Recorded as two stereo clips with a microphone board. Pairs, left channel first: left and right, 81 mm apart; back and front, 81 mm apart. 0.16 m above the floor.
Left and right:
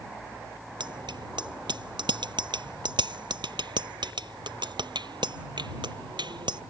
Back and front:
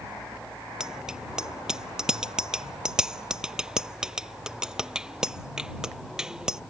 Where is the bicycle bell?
80° right.